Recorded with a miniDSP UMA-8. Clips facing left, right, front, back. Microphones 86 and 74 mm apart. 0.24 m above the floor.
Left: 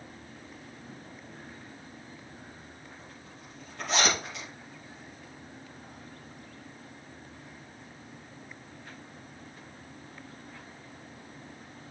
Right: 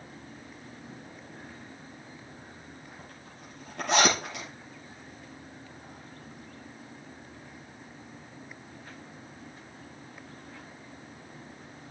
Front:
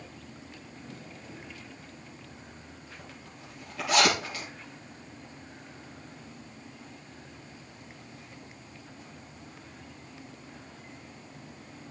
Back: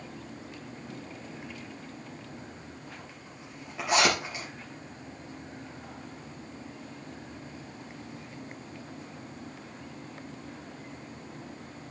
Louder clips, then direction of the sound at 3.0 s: Right 1 dB, back 1 dB; 115° right.